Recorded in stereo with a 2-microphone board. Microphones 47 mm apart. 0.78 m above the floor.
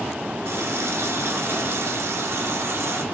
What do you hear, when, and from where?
0.5 s a running tap: 80° right, 1.2 m